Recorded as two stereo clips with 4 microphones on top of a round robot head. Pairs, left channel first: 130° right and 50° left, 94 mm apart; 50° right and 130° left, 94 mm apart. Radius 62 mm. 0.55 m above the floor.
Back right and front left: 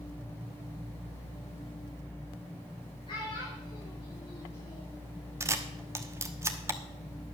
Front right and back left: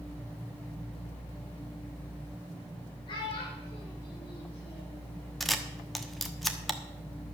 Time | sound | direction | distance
3.1 | a child speaking | 90° right | 6 m
5.4 | a camera shutter | 40° left | 1.1 m